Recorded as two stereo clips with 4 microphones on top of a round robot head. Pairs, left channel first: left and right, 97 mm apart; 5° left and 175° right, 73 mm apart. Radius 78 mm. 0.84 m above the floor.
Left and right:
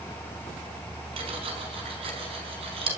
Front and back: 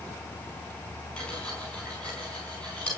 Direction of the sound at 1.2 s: 75° right.